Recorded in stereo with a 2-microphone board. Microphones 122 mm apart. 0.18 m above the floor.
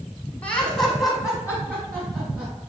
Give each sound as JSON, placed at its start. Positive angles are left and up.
{"t": 0.4, "sound": "laughter", "side_deg": 10, "distance_m": 1.3}